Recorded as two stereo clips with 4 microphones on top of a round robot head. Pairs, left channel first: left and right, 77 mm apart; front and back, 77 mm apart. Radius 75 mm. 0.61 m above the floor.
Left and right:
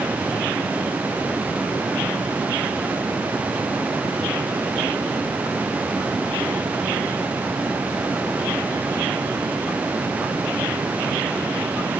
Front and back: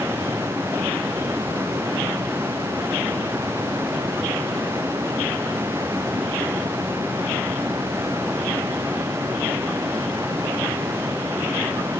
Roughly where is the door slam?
I don't hear a door slam.